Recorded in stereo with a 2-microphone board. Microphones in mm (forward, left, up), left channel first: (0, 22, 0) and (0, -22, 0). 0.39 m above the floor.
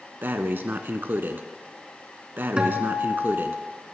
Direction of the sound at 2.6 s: 25° right (ahead or behind).